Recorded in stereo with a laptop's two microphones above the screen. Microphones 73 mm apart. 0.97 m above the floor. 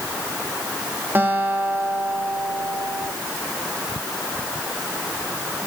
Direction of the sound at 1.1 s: 30° right (ahead or behind).